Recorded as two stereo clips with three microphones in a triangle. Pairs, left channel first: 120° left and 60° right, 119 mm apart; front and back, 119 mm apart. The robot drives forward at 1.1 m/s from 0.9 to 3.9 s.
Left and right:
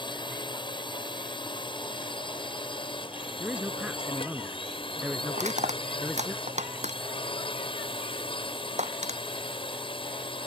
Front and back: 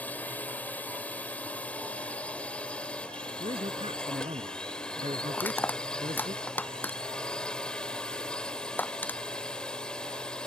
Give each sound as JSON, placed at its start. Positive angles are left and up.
{"t": 0.0, "sound": "a drone", "azimuth_deg": 75}
{"t": 3.4, "sound": "a man speaking", "azimuth_deg": -140}
{"t": 5.3, "sound": "crushing", "azimuth_deg": -75}